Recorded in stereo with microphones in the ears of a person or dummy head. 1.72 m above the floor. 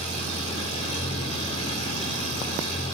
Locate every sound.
0.0 s an engine running: 35° left (ahead or behind), 4 m